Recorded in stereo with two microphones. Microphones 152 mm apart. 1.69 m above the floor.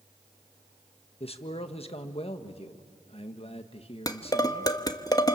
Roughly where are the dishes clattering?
Left.